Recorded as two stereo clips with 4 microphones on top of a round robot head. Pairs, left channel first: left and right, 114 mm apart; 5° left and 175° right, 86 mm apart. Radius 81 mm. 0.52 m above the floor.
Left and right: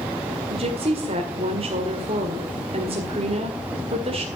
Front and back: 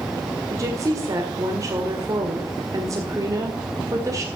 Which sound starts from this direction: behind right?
A woman speaking, at 0.5 s.